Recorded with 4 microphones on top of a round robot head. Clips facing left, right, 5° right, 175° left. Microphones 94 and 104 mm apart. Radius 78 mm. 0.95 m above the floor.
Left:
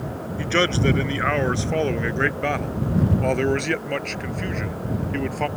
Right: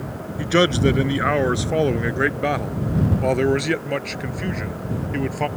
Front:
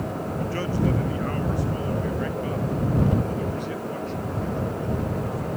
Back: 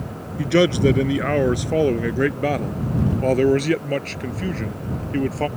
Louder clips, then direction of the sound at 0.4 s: Right 4 dB, back 11 dB; 165° right.